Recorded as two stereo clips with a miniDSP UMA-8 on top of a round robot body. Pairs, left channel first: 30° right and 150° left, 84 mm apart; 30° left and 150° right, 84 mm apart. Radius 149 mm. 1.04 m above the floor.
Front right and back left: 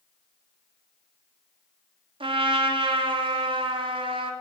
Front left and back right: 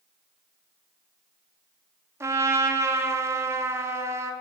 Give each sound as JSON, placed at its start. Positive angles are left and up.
{"t": 2.2, "sound": "a trumpet", "azimuth_deg": 150, "distance_m": 0.6}